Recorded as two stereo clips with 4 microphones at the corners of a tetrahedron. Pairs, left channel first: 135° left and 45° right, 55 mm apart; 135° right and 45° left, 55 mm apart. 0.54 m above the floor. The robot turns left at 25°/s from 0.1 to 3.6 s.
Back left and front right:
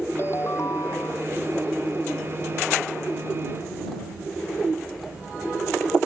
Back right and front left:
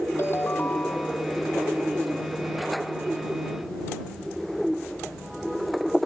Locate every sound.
0.2 s a ringtone: straight behind; by 1.3 s 155° left